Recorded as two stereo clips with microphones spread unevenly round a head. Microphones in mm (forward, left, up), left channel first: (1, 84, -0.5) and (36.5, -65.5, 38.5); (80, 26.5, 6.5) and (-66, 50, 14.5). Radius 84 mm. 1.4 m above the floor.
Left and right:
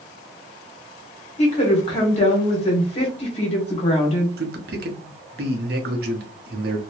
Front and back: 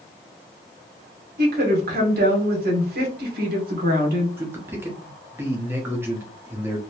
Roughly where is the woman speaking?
Behind left.